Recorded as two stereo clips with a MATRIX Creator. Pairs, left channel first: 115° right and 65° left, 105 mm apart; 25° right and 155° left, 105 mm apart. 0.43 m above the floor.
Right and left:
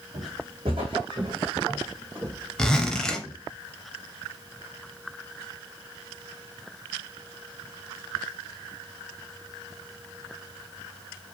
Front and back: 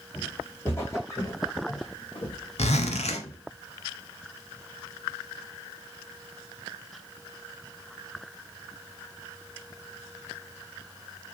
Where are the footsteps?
55° left, 1.3 m; by 3.4 s 30° right, 1.2 m.